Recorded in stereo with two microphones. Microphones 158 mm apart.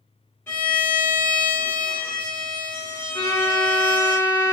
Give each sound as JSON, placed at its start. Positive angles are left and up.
{"t": 0.5, "sound": "a violin", "side_deg": 15, "distance_m": 2.0}
{"t": 3.1, "sound": "a violin", "side_deg": 15, "distance_m": 0.8}